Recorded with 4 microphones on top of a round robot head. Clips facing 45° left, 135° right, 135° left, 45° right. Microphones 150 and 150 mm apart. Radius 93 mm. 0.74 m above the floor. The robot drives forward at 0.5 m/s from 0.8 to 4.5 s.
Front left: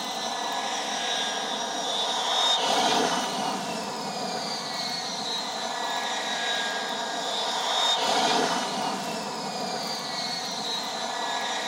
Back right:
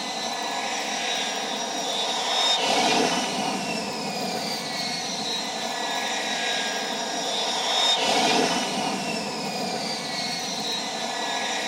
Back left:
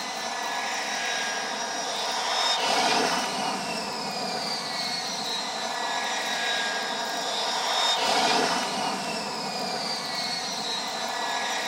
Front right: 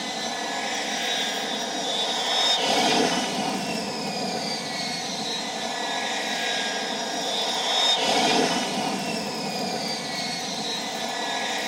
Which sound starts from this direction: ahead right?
An aircraft, at 0.0 s.